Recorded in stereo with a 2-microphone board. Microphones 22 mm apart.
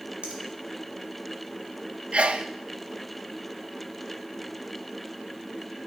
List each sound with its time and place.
0.2 s a finger snap: 65° right (ahead or behind), 1.9 m
2.1 s a sneeze: 60° right (ahead or behind), 0.5 m